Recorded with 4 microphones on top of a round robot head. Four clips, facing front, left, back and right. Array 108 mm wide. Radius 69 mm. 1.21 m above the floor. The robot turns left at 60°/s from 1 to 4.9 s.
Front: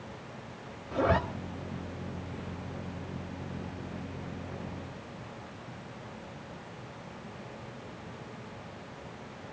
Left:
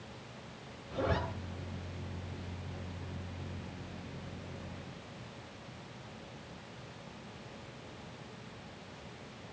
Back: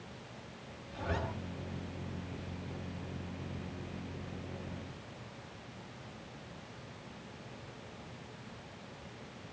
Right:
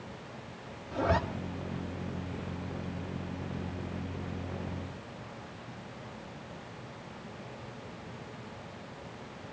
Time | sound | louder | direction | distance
0.9 | a zipper | right 5 dB, front 12 dB | 10° right | 2.5 m